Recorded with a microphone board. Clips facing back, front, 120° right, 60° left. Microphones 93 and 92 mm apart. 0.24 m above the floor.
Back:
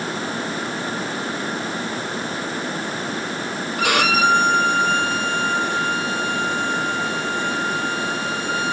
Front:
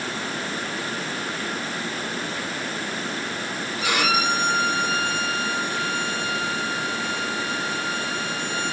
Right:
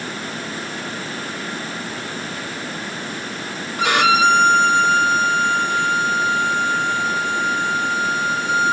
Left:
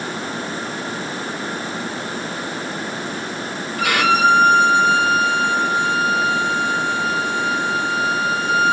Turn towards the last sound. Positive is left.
turn(degrees=175)